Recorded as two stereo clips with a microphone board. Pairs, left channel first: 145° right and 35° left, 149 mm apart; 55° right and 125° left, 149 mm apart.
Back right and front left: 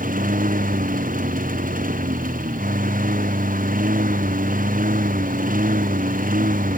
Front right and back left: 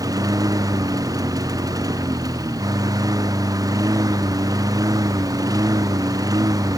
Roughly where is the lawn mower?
Ahead left.